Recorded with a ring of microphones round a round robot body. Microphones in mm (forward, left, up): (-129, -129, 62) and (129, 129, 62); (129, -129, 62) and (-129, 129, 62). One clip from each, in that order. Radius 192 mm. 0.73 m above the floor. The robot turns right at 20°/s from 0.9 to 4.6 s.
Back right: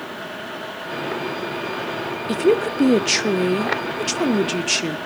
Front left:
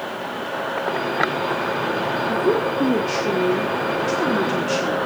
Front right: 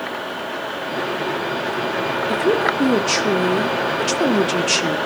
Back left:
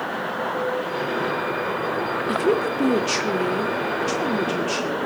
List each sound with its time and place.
2.3 s a woman speaking: 150° right, 1.5 m; by 5.0 s 100° right, 1.5 m